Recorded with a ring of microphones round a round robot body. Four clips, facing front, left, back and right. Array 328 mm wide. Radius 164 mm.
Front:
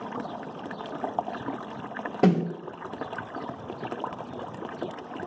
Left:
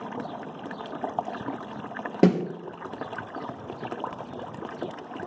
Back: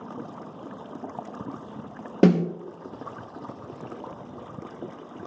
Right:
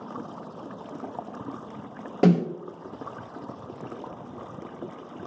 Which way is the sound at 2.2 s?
140° left.